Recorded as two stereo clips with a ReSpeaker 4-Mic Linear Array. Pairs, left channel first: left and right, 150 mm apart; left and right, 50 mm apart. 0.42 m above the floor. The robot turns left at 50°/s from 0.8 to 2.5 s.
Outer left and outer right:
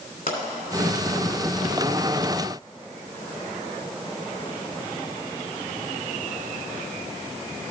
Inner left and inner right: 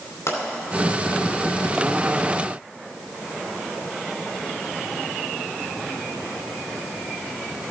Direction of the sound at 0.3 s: 80° left.